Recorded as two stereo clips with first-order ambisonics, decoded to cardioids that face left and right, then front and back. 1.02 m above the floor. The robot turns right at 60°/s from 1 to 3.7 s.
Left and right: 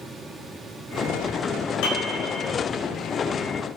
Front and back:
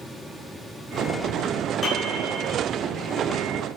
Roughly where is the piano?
Left.